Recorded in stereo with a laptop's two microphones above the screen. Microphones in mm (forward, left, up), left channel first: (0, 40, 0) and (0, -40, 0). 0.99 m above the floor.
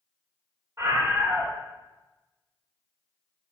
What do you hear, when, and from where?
0.8 s a scream: 40° right (ahead or behind), 2 m